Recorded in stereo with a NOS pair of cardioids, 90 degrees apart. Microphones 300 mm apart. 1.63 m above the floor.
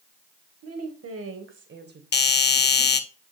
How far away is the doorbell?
About 1.1 m.